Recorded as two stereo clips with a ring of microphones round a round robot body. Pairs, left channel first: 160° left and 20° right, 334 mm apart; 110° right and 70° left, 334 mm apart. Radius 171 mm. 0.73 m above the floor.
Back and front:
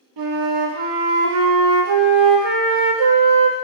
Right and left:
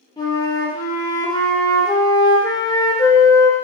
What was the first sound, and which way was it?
A flute, 35° right.